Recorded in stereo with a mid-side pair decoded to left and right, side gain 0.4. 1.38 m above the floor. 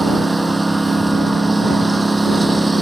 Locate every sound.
0.0 s a lawn mower: 15° right